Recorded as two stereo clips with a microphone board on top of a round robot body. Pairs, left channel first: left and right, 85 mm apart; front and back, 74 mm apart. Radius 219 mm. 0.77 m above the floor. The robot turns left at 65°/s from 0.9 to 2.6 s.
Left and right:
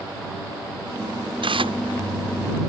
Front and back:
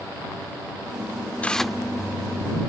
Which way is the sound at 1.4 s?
70° right.